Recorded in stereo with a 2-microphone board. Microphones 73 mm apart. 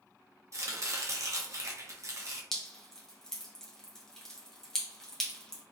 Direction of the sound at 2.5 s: 5° left (ahead or behind).